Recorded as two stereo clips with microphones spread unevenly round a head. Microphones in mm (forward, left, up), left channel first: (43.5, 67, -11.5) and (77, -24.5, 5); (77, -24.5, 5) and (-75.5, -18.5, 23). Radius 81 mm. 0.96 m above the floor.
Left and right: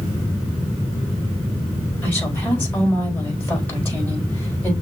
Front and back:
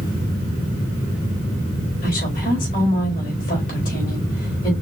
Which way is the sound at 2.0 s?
40° left.